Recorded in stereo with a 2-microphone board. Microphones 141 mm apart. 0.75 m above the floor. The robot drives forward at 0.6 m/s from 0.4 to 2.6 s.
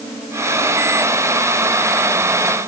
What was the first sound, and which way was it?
Only background noise.